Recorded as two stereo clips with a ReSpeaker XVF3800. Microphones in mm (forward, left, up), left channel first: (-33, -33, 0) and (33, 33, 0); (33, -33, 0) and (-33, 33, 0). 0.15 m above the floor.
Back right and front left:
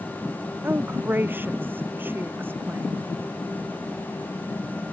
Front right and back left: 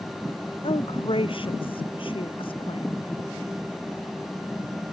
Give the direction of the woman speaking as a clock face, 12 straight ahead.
1 o'clock.